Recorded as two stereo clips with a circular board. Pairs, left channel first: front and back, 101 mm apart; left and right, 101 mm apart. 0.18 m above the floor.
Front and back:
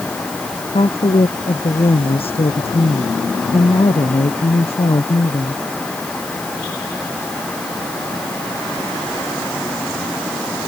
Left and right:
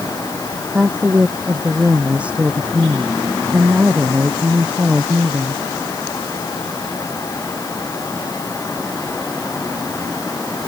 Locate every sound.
0.7 s a woman speaking: 15° right